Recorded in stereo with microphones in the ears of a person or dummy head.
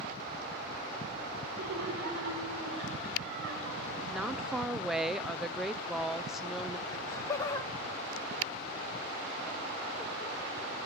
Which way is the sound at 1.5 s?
80° right.